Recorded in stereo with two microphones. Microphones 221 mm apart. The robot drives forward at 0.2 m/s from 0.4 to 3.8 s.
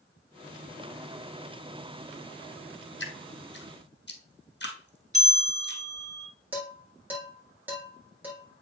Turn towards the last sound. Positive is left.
turn(degrees=-5)  # may be behind; listen again after turning